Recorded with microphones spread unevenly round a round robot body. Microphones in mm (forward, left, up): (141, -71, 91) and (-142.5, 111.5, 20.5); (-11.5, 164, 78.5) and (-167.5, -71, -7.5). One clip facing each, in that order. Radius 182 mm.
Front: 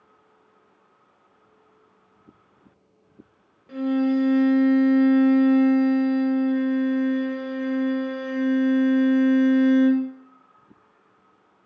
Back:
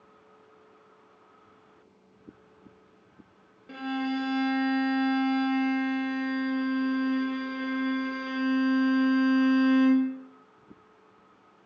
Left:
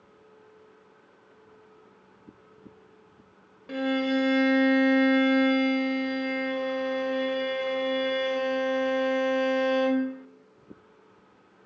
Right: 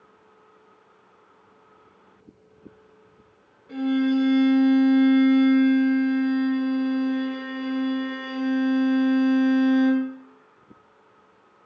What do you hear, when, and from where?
3.7 s a violin: 60° left, 0.5 m